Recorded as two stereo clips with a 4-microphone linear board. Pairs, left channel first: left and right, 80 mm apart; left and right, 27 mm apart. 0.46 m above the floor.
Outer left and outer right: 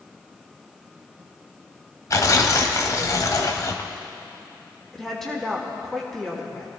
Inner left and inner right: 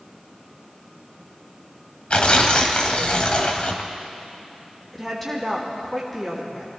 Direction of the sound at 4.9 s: 5° left (ahead or behind).